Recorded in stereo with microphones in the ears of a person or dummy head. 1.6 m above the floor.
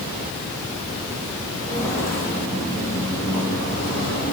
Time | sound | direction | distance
1.6 | footsteps | 10° left (ahead or behind) | 4.5 m